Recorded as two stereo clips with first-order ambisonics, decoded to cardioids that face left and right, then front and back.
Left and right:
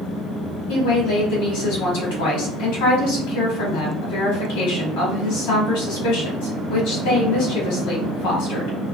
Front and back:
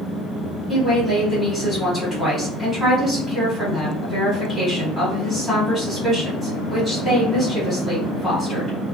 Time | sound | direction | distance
0.7 | a woman speaking | 90° left | 1.8 m